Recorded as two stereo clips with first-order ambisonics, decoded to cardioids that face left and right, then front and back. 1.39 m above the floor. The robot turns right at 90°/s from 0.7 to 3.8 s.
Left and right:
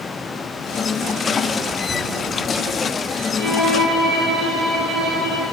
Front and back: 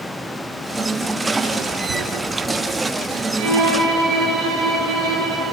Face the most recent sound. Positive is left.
turn(degrees=-160)